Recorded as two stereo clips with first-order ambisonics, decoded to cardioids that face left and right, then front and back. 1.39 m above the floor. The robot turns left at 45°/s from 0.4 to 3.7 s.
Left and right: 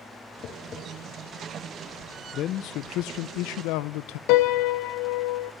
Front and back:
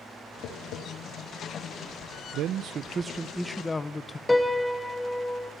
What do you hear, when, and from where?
0.4 s tapping: 45° left, 4 m; by 0.8 s 25° left, 4 m
2.3 s a man speaking: 140° left, 0.7 m; by 4.2 s 80° left, 0.7 m
4.3 s a piano: 85° left, 0.9 m